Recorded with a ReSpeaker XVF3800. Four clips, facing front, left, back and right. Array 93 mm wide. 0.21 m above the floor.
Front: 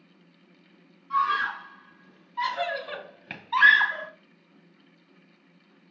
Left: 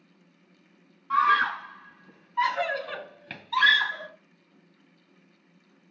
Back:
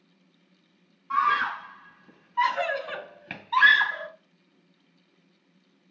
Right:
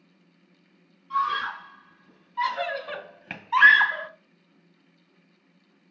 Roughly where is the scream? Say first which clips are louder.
Left 4 dB, back 1 dB; behind left.